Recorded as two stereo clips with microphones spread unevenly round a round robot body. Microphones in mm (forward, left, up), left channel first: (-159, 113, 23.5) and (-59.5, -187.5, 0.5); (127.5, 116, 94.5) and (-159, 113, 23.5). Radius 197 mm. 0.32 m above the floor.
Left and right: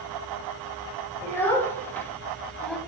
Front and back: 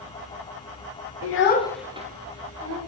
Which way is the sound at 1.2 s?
20° left.